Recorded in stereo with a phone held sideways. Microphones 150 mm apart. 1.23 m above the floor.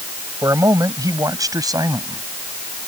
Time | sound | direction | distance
0.4 | a man speaking | 20° right (ahead or behind) | ?